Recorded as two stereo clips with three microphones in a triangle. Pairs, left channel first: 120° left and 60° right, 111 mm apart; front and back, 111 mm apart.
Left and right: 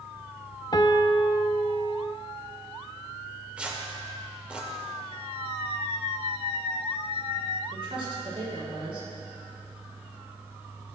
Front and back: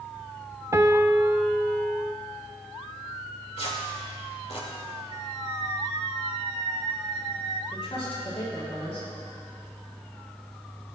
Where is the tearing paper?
20° left, 2.5 m.